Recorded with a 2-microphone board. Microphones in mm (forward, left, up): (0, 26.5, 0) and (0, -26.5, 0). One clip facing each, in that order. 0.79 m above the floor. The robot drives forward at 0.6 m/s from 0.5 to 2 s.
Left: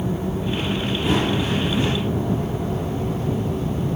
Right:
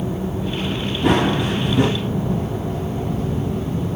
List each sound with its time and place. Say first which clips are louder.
1.0 s running footsteps: right 5 dB; 80° right, 4 m; by 1.9 s 75° right (ahead or behind), 4 m